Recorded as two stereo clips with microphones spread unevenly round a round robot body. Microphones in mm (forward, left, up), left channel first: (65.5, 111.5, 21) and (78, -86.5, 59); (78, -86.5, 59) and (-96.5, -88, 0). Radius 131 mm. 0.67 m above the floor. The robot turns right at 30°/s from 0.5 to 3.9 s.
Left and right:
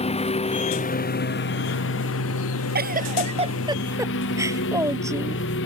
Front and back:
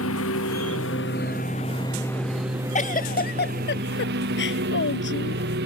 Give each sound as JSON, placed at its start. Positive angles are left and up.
{"t": 0.0, "sound": "a lawn mower", "azimuth_deg": 35}
{"t": 2.8, "sound": "a giggle", "azimuth_deg": -45}